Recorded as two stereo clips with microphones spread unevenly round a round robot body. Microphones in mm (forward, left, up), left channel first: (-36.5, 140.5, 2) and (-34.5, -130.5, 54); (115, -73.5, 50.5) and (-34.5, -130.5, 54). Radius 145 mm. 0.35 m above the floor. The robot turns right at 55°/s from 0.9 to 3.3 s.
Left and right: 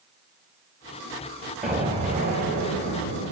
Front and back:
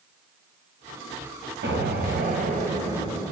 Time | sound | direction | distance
1.6 | an explosion | straight behind | 1.8 m